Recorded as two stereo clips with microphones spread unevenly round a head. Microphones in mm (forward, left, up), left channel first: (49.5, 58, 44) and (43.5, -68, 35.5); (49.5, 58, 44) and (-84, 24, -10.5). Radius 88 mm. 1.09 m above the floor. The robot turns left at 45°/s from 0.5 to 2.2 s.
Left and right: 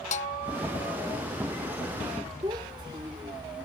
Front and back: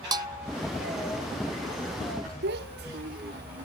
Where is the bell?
135° left; by 0.6 s 130° left.